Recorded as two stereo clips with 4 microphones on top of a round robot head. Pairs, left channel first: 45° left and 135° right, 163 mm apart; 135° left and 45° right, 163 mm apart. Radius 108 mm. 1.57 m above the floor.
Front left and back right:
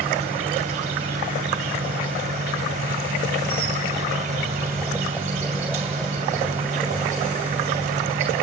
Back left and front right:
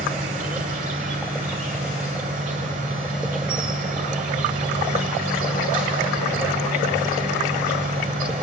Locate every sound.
0.0 s an insect: 85° right, 2.5 m